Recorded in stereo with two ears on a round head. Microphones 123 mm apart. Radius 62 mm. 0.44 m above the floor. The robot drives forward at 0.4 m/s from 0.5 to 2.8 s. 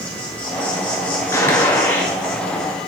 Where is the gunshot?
20° left (ahead or behind), 1.1 m; by 2.1 s 15° left (ahead or behind), 1.4 m.